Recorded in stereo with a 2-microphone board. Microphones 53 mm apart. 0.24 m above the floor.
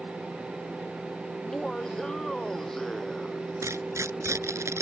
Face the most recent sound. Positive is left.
turn(degrees=-70)  # may be behind; listen again after turning